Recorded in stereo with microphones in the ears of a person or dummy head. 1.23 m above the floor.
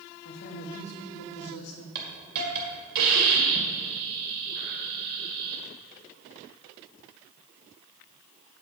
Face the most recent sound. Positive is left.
turn(degrees=-55)  # may be behind; listen again after turning